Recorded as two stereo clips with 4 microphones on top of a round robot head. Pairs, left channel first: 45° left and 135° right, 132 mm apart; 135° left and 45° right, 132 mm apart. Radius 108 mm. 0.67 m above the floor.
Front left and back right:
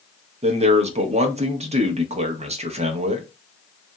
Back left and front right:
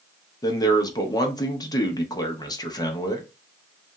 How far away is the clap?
I don't hear a clap.